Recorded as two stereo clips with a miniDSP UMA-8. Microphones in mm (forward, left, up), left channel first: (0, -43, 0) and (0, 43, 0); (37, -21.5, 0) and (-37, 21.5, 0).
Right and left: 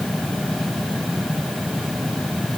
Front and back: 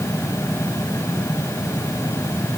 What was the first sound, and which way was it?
Only background noise.